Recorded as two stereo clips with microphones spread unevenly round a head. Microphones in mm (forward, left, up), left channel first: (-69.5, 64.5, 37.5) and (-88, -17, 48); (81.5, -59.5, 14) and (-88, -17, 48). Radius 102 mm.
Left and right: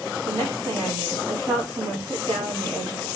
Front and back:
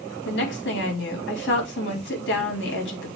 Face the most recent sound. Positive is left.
turn(degrees=-35)